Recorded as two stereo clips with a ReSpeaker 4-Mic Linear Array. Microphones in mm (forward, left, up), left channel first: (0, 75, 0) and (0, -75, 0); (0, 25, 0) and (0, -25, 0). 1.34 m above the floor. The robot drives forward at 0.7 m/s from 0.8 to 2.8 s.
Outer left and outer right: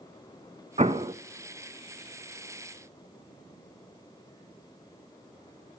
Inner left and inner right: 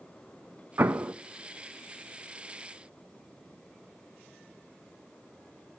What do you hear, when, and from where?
0.8 s an explosion: 45° right (ahead or behind), 0.7 m; by 1.1 s 35° right (ahead or behind), 0.8 m